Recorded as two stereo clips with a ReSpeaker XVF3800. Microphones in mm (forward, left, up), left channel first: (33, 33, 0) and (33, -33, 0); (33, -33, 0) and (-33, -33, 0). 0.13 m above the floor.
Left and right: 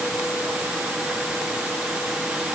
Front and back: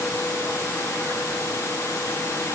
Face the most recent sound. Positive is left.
No sound to turn to.